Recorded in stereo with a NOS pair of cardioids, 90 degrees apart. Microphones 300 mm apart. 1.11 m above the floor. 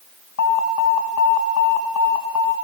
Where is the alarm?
60° left, 5 m.